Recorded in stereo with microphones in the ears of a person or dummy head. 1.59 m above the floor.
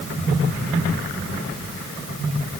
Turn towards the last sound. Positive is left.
No sound to turn to.